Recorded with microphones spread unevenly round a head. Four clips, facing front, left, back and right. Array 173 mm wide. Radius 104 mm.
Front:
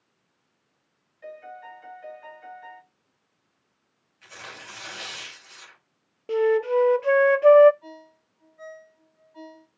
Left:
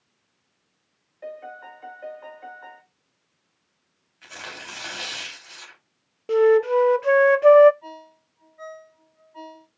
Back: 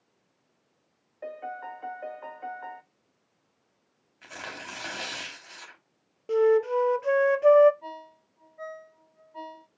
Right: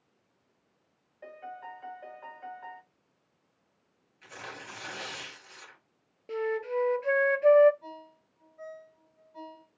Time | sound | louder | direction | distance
1.2 | a piano | left 6 dB, back 4 dB | 155° left | 1.3 m
4.2 | tearing paper | left 4 dB, back 3 dB | 175° left | 5 m
6.3 | a flute | left 14 dB, even | 45° left | 0.7 m
7.8 | a ringtone | left 4 dB, back 4 dB | 165° right | 6 m